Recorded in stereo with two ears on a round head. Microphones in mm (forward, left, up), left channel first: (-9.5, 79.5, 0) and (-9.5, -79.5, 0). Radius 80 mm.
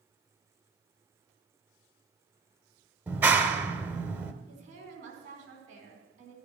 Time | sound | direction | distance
3.1 | a clap | 10° right (ahead or behind) | 0.9 m
4.5 | a woman speaking | 45° right (ahead or behind) | 4.5 m